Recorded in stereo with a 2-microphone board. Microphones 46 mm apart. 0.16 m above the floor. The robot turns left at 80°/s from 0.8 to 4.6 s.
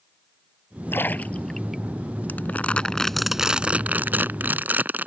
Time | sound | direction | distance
0.9 | a splash | 55° left (ahead or behind) | ?
2.3 | crumpling | 75° left | ?